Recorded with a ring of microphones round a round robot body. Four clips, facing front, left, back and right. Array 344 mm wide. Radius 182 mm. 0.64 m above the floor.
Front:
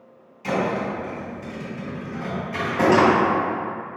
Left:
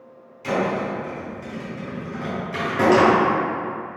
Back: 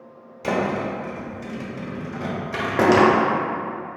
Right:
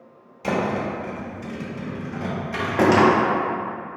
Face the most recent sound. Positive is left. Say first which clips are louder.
# left 1 dB, even
turn(degrees=-160)